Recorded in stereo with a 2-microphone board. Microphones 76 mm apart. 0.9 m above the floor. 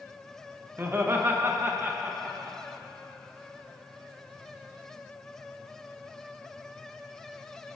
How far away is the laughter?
About 0.9 m.